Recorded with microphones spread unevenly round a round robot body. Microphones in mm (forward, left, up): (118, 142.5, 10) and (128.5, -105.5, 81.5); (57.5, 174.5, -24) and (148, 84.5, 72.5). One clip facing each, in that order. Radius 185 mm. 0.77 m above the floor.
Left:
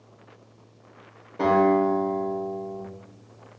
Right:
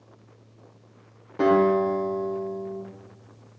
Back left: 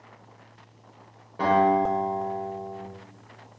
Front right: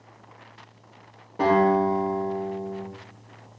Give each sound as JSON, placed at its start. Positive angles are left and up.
{"t": 1.4, "sound": "a guitar", "azimuth_deg": -135, "distance_m": 3.5}